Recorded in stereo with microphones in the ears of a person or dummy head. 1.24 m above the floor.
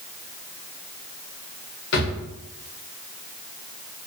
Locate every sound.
1.9 s a drawer: 65° left (ahead or behind), 1.4 m